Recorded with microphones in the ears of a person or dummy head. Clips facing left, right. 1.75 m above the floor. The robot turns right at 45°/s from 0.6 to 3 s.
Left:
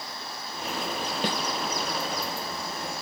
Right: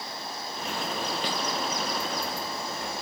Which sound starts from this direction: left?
A snare drum, at 1.2 s.